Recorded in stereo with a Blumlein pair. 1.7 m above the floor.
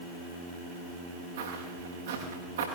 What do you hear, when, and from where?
1.4 s footsteps: 60° right, 8 m